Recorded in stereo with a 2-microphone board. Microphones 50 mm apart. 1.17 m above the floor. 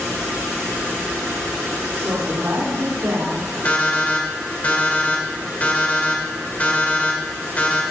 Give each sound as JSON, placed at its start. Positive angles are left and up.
{"t": 1.9, "sound": "a woman speaking", "side_deg": -60, "distance_m": 4.0}
{"t": 3.6, "sound": "an alarm clock", "side_deg": 30, "distance_m": 2.0}